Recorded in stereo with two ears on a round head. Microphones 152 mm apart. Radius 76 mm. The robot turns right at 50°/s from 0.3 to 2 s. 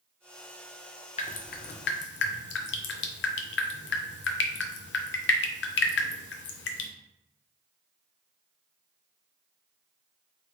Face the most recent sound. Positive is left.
turn(degrees=70)  # may be behind; listen again after turning